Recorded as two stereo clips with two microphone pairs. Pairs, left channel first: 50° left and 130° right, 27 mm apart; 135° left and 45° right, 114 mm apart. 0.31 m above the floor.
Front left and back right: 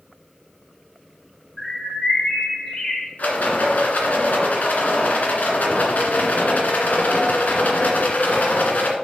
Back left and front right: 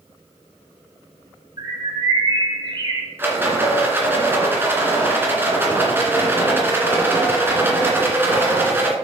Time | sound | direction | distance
1.6 | a bird | 10° right | 1.9 m
3.2 | a rattle | 30° left | 1.9 m